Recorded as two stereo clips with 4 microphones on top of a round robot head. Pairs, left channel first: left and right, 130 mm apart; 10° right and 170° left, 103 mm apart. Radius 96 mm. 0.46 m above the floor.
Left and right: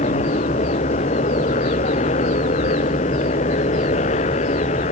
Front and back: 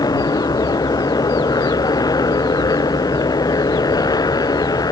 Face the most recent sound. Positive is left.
turn(degrees=45)